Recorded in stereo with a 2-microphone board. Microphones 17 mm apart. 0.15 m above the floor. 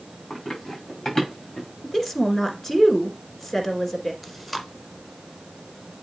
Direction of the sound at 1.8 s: 20° left (ahead or behind).